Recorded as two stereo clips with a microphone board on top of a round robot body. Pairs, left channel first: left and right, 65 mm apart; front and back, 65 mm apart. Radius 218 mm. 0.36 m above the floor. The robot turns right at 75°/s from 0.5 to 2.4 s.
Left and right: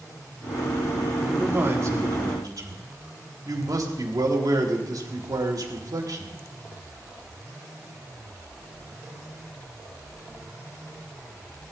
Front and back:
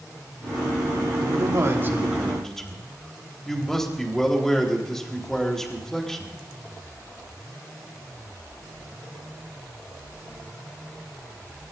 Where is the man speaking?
170° right, 3.5 m; by 6.4 s 85° right, 3.5 m.